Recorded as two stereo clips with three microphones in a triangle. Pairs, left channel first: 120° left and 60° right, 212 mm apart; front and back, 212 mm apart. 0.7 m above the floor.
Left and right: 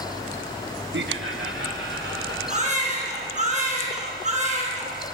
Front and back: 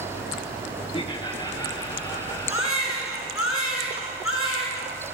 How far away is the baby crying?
About 4.5 m.